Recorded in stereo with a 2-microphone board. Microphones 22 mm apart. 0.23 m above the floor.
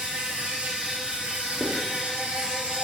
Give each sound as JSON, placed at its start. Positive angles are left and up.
{"t": 0.0, "sound": "an insect", "side_deg": -65, "distance_m": 2.5}
{"t": 1.6, "sound": "writing", "side_deg": 20, "distance_m": 3.0}